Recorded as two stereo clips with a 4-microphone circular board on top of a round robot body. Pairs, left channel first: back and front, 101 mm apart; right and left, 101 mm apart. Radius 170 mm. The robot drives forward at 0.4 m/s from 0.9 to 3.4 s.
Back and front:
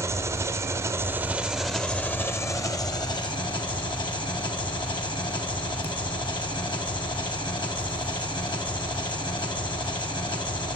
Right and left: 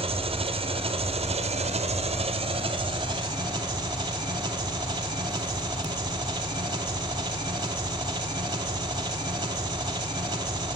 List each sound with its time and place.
0.0 s an engine running: 65° left, 0.7 m; by 10.8 s 140° left, 1.0 m